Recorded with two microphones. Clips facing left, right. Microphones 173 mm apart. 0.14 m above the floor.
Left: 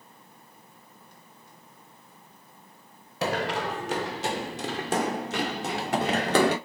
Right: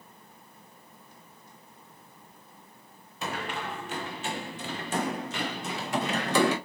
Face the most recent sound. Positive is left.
turn(degrees=65)  # may be behind; listen again after turning